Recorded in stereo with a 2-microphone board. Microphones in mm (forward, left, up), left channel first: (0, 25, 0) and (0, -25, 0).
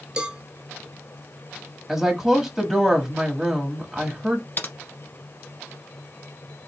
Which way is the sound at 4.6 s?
40° left (ahead or behind).